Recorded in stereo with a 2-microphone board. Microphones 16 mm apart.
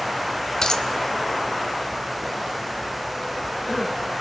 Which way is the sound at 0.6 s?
50° left (ahead or behind).